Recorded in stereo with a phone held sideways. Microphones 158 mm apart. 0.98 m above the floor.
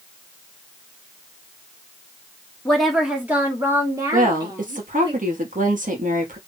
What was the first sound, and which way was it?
A woman speaking, 5° left (ahead or behind).